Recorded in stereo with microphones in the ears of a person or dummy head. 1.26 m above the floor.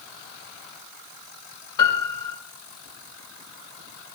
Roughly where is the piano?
Centre.